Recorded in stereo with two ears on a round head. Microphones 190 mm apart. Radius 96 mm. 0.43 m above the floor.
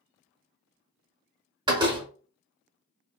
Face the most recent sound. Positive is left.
turn(degrees=-20)  # may be behind; listen again after turning